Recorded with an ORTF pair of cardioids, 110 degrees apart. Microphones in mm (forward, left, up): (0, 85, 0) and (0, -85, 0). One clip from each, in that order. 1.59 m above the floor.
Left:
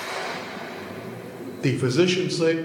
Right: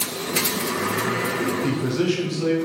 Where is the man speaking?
35° left, 0.5 m.